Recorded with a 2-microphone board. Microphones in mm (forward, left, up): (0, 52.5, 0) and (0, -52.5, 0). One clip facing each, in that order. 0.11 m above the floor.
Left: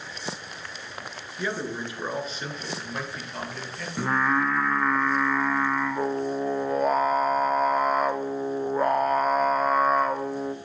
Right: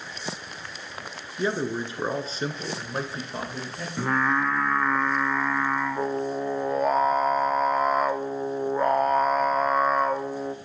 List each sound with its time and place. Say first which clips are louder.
1.4 s a man speaking: right 4 dB; 25° right (ahead or behind), 1.3 m; by 3.9 s 30° right (ahead or behind), 1.7 m
4.0 s singing: even; centre (ahead or behind), 0.8 m